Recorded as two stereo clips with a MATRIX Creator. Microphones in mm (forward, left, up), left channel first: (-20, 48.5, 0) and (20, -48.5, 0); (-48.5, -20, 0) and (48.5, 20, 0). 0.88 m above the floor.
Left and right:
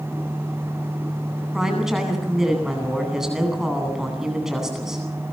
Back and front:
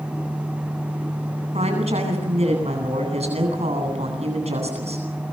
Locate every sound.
1.5 s a woman speaking: 20° left, 9.5 m